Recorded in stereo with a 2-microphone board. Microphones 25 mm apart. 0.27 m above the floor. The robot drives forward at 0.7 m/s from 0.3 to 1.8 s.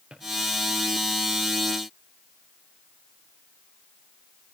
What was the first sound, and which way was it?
A drawer, 55° right (ahead or behind).